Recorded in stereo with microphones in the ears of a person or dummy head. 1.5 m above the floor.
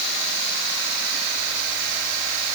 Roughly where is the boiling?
No boiling in this recording.